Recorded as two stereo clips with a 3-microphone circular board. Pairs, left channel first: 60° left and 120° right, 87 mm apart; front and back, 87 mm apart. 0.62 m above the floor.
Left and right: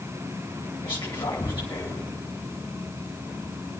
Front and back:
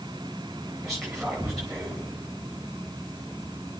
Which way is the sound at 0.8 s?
90° left.